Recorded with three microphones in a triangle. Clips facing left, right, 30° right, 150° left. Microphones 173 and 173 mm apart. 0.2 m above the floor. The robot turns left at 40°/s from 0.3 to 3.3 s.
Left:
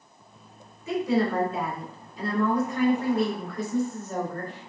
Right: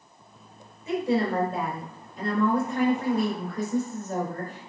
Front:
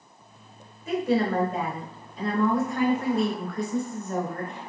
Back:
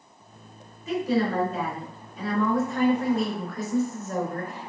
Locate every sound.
0.9 s a woman speaking: 25° right, 2.5 m; by 4.7 s 125° right, 2.5 m